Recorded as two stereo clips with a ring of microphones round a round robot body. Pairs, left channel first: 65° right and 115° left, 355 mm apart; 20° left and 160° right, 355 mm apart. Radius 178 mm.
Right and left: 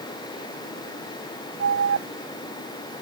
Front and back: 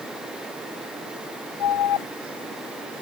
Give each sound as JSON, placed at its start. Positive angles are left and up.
{"t": 1.6, "sound": "an alarm", "azimuth_deg": 60}